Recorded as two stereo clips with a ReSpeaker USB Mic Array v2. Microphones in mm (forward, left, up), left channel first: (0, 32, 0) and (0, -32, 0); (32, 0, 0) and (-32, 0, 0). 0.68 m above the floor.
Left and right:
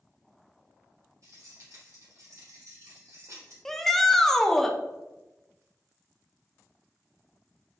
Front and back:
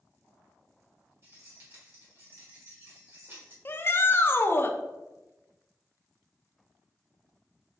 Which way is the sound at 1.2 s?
120° right.